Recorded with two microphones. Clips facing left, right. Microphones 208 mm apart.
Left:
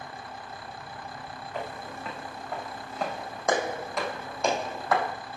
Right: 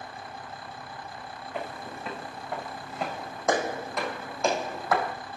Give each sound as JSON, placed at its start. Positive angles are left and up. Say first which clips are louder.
{"t": 1.5, "sound": "footsteps", "louder": "even", "side_deg": -5, "distance_m": 5.5}